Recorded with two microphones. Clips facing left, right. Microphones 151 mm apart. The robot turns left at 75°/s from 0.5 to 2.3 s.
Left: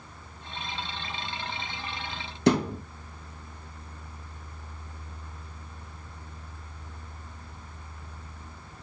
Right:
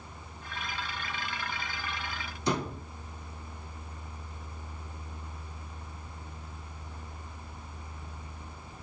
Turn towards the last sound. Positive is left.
turn(degrees=75)  # may be behind; listen again after turning